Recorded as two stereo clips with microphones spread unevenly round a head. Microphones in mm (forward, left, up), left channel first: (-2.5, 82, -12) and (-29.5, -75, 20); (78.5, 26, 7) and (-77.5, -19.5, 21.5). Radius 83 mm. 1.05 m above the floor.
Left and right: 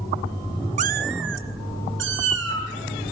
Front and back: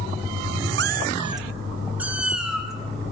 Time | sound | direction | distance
0.8 | a cat meowing | 145° right | 0.6 m